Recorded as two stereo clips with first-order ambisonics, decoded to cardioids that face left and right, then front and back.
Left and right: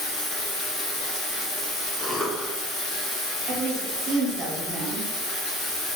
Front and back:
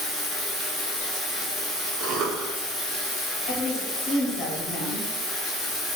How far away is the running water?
About 1.3 m.